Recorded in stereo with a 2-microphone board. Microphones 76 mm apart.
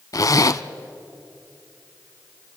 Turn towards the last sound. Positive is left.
turn(degrees=50)  # may be behind; listen again after turning